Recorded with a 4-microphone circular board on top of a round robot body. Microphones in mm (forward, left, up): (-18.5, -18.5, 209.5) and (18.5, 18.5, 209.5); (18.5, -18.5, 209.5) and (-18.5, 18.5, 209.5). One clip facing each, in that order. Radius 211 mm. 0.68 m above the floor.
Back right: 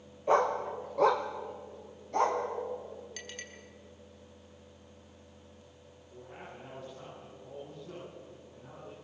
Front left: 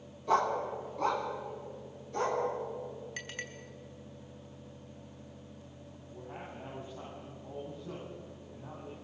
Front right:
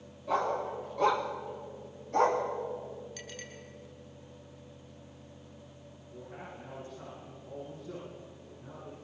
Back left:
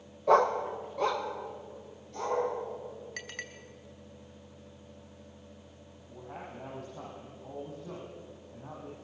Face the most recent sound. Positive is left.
turn(degrees=115)